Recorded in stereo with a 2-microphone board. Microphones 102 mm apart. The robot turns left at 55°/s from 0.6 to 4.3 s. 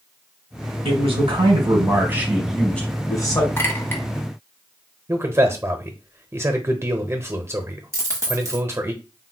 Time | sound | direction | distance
0.8 | a man speaking | 85° right | 1.7 m
3.6 | a clink | 25° left (ahead or behind) | 0.8 m
5.1 | a man speaking | 30° right (ahead or behind) | 0.8 m
7.9 | a dropped coin | 30° right (ahead or behind) | 0.9 m